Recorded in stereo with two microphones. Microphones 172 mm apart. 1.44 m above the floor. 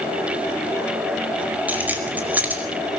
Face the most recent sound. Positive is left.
turn(degrees=-10)  # may be behind; listen again after turning